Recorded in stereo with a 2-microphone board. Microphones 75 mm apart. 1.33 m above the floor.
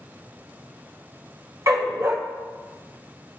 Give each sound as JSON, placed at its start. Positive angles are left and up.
{"t": 1.7, "sound": "a dog barking", "side_deg": -45, "distance_m": 1.5}